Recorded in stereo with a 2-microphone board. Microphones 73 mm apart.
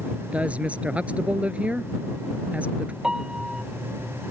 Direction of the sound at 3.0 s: 10° right (ahead or behind).